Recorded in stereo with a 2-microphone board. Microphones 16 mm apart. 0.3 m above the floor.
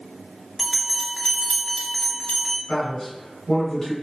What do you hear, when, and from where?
0.6 s a bell: 20° left (ahead or behind), 1.1 m
2.7 s a man speaking: 35° left (ahead or behind), 1.5 m